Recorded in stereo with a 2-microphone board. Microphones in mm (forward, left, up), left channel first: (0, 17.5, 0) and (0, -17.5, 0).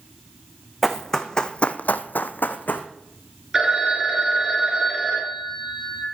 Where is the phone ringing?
15° right (ahead or behind), 2.5 m.